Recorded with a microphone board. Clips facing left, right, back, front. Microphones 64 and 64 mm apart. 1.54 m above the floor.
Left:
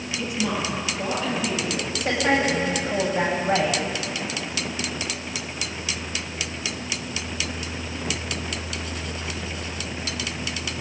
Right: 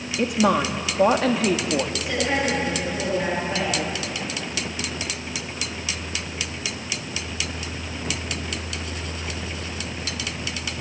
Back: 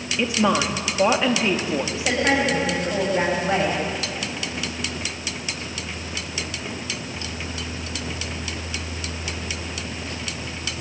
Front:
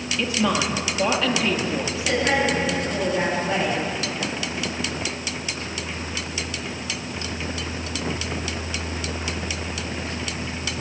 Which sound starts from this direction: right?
A woman speaking, at 0.2 s.